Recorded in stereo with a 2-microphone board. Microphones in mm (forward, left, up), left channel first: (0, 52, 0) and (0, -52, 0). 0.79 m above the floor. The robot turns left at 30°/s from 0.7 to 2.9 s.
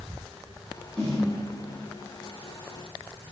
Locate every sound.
1.0 s a snare drum: 5° left (ahead or behind), 0.8 m; by 1.3 s 5° right (ahead or behind), 0.8 m